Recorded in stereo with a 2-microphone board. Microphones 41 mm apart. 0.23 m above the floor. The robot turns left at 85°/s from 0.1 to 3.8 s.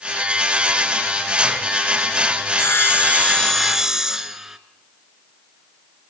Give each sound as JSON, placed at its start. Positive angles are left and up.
{"t": 2.5, "sound": "sawing", "azimuth_deg": 95, "distance_m": 1.3}